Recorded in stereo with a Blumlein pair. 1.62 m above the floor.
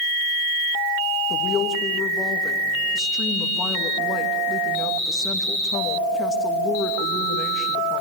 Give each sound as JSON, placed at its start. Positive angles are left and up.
{"t": 1.3, "sound": "a woman speaking", "azimuth_deg": 20, "distance_m": 2.5}